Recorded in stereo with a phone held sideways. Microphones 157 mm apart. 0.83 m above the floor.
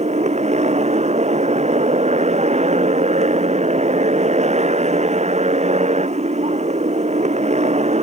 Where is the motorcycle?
45° right (ahead or behind).